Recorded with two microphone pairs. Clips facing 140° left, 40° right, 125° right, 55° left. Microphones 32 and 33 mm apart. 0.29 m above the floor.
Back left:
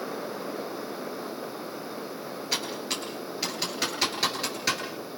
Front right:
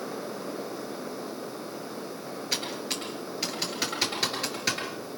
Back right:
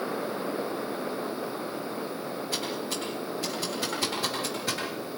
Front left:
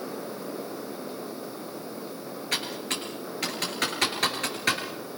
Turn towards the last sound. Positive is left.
turn(degrees=50)